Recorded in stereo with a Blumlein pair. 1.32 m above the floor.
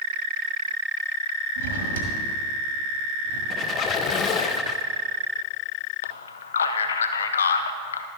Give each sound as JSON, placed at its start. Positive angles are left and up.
{"t": 1.6, "sound": "a drawer", "azimuth_deg": -60, "distance_m": 1.6}
{"t": 3.5, "sound": "a squeak", "azimuth_deg": 30, "distance_m": 0.5}
{"t": 6.0, "sound": "a man speaking", "azimuth_deg": 65, "distance_m": 0.8}